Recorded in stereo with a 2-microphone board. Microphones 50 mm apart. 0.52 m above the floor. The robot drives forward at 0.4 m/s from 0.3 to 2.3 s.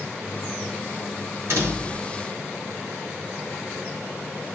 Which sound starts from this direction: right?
A door slam, at 1.5 s.